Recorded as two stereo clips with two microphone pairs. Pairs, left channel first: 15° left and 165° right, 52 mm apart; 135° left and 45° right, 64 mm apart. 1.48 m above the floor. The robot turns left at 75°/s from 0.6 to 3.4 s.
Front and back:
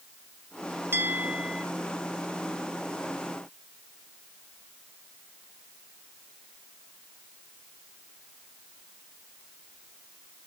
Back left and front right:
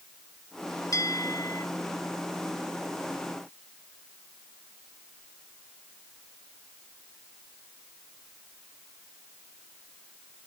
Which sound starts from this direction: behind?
A bell, at 0.9 s.